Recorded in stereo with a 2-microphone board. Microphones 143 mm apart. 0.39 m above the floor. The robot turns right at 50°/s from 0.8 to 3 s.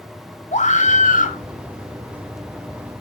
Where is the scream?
60° left (ahead or behind), 2 m; by 1.4 s 65° left (ahead or behind), 2 m.